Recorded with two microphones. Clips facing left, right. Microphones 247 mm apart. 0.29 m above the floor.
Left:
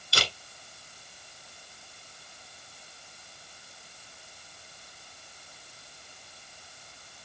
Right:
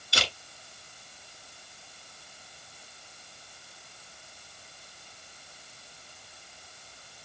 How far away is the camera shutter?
About 1.6 m.